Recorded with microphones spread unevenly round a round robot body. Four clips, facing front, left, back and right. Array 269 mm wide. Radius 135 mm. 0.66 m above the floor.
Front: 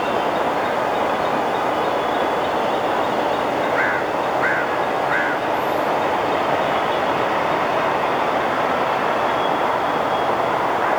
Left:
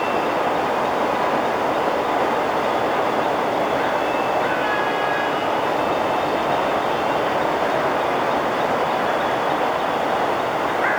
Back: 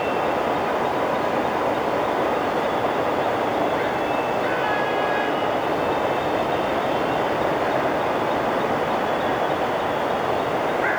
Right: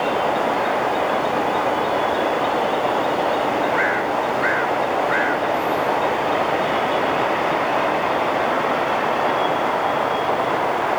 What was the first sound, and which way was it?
Only background noise.